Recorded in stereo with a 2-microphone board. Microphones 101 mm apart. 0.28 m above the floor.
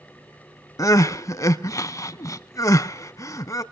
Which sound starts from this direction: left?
Crying, at 0.8 s.